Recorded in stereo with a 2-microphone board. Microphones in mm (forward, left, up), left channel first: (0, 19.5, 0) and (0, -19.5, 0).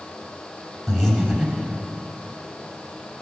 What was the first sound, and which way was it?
Breathing, 5° left (ahead or behind).